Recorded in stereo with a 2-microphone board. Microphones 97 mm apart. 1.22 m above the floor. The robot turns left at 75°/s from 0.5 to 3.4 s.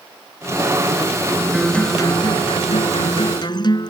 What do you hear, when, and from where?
1.5 s a guitar: 175° right; by 3.9 s 45° left